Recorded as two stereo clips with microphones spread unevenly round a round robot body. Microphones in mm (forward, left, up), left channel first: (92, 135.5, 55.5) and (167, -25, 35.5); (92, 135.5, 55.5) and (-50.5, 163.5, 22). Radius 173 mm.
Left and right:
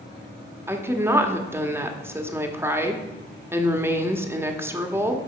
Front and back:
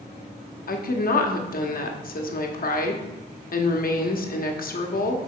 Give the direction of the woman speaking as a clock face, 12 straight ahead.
12 o'clock.